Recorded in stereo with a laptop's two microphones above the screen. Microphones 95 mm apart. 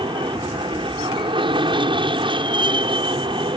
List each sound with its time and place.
0.0 s an aircraft: 60° right (ahead or behind)